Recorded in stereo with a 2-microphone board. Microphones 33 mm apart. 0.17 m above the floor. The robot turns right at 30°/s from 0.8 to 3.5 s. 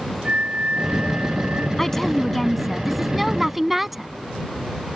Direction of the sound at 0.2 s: 45° right (ahead or behind).